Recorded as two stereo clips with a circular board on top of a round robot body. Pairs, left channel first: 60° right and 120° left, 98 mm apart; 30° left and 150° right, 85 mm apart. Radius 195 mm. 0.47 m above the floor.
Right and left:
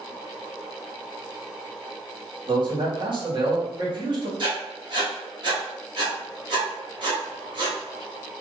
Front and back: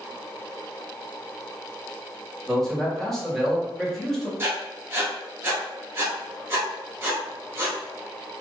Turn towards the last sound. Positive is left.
turn(degrees=150)